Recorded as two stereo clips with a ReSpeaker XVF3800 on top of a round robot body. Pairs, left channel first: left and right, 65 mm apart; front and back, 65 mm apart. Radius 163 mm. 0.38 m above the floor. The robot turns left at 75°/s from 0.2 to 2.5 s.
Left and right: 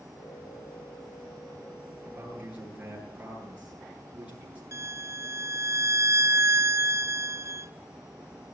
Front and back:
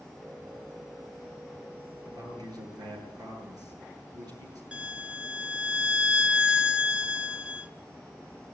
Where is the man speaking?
130° right, 9 m; by 4.6 s 160° right, 9 m.